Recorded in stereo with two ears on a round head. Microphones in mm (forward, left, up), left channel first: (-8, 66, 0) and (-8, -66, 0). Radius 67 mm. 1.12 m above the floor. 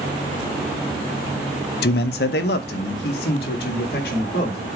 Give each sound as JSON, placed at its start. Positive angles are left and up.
{"t": 1.8, "sound": "a man speaking", "side_deg": 75, "distance_m": 0.5}